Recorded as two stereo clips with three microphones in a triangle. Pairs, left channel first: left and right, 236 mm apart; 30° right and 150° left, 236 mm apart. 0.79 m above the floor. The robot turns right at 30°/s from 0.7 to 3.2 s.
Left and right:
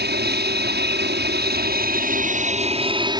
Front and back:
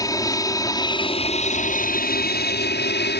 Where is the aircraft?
100° right; by 3.2 s 25° right.